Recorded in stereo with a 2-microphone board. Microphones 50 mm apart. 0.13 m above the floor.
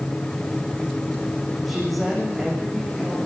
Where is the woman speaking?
Centre (ahead or behind), 7.5 m; by 3.2 s 5° left (ahead or behind), 8.5 m.